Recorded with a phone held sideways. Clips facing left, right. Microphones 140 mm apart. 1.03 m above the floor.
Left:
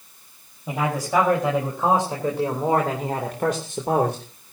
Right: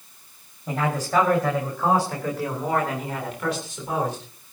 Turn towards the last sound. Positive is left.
turn(degrees=70)  # may be behind; listen again after turning